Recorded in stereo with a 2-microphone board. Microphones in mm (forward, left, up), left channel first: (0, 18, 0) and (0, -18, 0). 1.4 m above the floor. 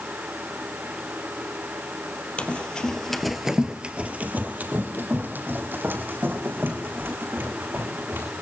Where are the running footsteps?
40° left (ahead or behind), 2.5 m; by 8.2 s 80° right, 7.5 m.